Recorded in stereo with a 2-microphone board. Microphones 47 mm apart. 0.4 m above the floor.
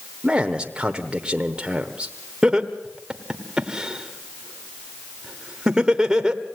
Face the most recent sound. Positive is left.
turn(degrees=-15)  # may be behind; listen again after turning